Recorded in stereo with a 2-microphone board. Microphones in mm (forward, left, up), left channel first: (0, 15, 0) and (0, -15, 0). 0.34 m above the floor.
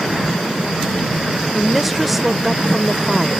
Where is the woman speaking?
5° right (ahead or behind).